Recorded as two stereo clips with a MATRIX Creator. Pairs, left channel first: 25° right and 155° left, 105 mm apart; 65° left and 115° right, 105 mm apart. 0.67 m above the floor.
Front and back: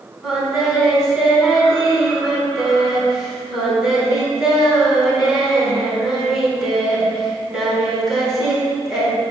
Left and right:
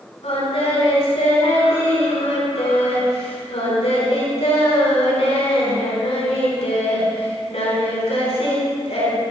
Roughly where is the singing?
Left.